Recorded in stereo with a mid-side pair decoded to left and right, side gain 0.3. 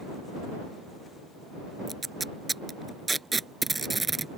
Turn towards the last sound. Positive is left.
turn(degrees=-35)